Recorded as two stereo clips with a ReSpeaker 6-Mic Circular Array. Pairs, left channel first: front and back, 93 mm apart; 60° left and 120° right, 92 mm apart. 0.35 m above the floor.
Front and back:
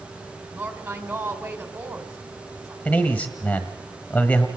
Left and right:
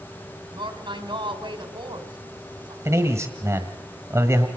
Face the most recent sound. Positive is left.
turn(degrees=-70)